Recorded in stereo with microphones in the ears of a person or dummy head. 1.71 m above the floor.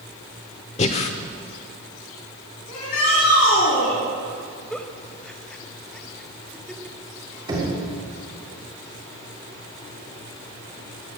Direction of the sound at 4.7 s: 5° left (ahead or behind).